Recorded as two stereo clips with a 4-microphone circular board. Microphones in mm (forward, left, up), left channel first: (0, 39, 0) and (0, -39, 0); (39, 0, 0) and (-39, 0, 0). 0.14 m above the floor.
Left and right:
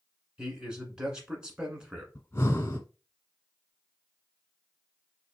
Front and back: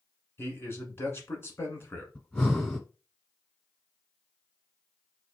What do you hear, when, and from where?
0.4 s a man speaking: 20° right, 1.4 m
2.1 s breathing: 60° left, 1.3 m